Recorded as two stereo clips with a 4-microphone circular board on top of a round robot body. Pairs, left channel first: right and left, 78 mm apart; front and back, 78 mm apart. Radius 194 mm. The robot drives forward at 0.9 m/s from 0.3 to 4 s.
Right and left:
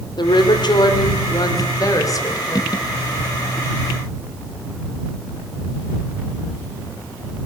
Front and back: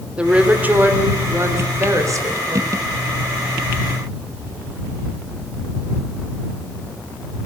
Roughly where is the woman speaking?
Right.